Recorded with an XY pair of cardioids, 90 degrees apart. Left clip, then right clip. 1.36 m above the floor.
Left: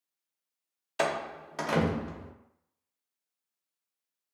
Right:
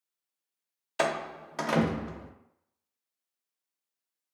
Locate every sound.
1.0 s a door slam: 10° right, 0.6 m